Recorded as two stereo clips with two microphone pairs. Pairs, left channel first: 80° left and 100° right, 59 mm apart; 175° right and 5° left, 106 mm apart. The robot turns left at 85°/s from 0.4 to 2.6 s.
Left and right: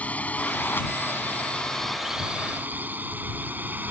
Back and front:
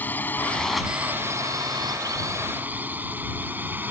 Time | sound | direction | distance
0.0 | a drone | 125° left | ?